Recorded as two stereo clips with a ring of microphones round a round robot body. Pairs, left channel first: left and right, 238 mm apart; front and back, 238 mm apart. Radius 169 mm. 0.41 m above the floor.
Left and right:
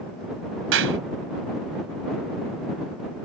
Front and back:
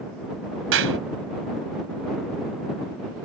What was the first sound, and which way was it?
A clap, 135° right.